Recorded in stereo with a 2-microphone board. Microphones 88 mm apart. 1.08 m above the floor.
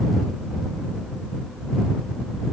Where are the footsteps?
No footsteps in this recording.